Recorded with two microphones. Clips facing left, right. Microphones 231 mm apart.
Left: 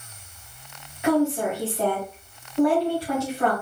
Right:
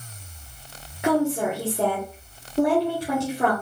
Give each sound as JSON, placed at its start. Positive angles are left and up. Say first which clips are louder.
{"t": 1.0, "sound": "a woman speaking", "louder": "left 1 dB", "side_deg": -55, "distance_m": 2.0}